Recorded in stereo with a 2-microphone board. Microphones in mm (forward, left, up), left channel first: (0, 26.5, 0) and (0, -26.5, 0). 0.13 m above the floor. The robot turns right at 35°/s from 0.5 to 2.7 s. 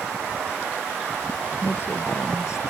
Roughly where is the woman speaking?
Ahead left.